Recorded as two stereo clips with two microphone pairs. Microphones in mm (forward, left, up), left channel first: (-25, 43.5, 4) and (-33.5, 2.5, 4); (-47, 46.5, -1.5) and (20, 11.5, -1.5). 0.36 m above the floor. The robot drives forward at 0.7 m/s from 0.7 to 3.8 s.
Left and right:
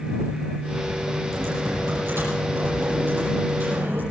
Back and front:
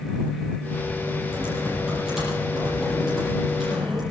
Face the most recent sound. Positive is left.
turn(degrees=-120)